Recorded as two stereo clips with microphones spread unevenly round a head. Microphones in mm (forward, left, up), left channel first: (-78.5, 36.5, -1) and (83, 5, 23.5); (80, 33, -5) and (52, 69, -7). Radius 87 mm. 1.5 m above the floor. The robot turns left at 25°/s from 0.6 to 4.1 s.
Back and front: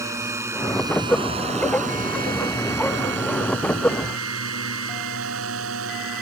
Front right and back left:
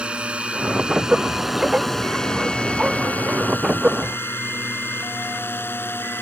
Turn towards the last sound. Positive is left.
turn(degrees=-15)